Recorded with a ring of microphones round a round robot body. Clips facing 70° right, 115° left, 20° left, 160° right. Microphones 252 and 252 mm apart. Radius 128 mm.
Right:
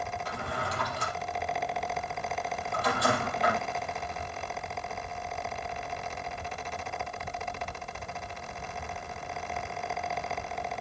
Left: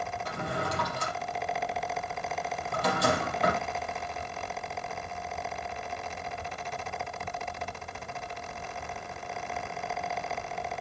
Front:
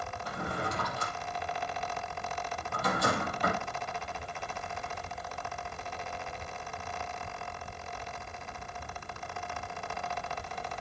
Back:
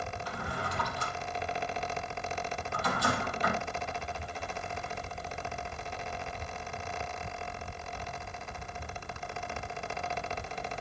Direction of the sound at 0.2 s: 65° left.